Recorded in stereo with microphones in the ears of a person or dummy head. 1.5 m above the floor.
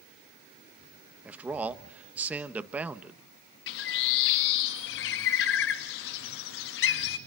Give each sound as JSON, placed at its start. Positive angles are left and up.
{"t": 1.2, "sound": "a man speaking", "side_deg": -5, "distance_m": 1.3}
{"t": 3.7, "sound": "a bird", "side_deg": 65, "distance_m": 1.6}